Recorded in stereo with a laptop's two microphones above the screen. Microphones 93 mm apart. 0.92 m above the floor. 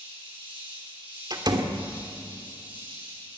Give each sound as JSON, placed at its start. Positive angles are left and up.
{"t": 0.0, "sound": "an insect", "side_deg": -65, "distance_m": 7.5}
{"t": 1.3, "sound": "a door slam", "side_deg": -50, "distance_m": 2.0}